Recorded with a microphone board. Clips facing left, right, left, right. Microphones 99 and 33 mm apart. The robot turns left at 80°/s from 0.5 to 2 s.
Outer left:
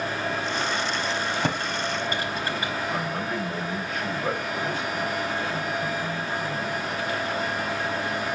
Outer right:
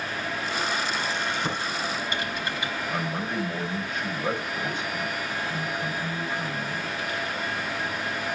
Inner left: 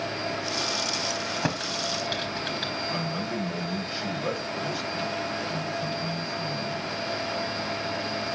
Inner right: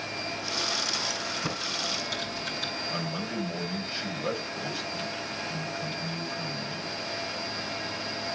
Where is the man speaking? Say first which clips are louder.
Outer left 1 dB, inner left 2 dB; 5° left (ahead or behind), 7.5 m.